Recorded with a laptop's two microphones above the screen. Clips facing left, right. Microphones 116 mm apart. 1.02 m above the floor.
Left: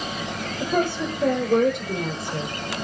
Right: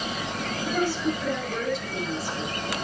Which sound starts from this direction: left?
A woman speaking, at 0.6 s.